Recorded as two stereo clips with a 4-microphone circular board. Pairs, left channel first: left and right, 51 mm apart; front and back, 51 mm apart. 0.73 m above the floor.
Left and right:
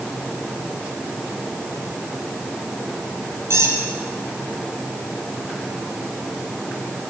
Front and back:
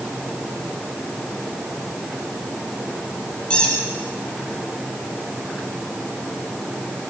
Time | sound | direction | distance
3.5 | a squeak | 70° right | 6.5 m